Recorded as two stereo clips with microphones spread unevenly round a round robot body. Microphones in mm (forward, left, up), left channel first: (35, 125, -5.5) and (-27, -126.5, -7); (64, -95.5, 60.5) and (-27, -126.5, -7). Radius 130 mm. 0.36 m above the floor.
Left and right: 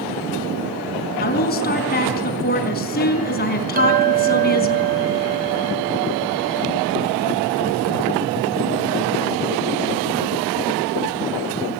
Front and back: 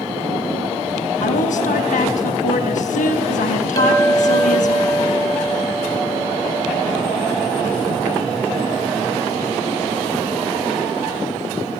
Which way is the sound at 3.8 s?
45° right.